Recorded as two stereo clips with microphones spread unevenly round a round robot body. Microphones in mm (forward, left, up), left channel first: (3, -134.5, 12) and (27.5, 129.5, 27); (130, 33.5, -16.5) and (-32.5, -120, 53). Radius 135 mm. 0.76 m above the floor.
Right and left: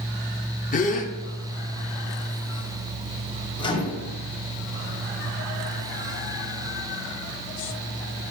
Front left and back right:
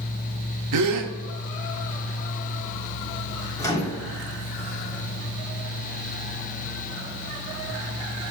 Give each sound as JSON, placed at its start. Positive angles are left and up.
{"t": 0.7, "sound": "a gasp", "azimuth_deg": -155, "distance_m": 0.7}
{"t": 3.6, "sound": "a microwave", "azimuth_deg": -25, "distance_m": 1.7}